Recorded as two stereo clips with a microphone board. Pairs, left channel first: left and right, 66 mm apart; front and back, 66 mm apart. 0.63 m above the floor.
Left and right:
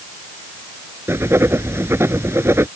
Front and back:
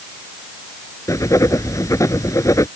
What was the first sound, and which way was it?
Writing, 40° right.